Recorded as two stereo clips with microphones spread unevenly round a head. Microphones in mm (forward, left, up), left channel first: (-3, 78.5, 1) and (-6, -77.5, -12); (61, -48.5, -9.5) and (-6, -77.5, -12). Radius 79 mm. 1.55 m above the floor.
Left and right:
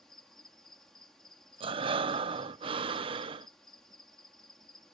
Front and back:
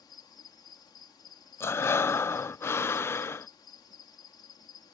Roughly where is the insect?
Ahead.